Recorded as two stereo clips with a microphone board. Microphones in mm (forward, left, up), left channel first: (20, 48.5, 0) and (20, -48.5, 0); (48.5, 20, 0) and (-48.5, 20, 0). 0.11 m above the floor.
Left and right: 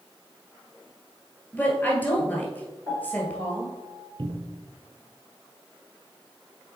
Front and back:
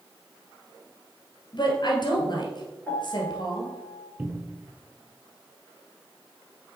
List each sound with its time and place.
1.5 s a woman speaking: 20° left, 1.7 m
2.9 s a piano: 60° left, 2 m
4.2 s a cupboard door: 110° right, 0.9 m